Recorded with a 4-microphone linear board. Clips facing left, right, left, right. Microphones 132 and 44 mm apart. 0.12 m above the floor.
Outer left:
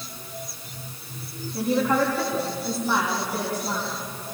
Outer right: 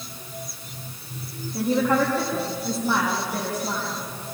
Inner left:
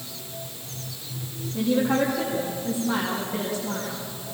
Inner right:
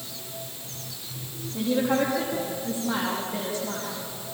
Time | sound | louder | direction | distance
1.5 | a woman speaking | outer right 1 dB, inner left 2 dB | 15° right (ahead or behind) | 7 m